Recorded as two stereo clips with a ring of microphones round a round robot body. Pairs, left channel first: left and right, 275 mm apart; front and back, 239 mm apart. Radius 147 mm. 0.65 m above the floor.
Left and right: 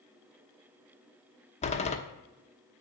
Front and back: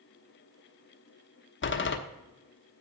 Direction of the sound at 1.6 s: 25° left.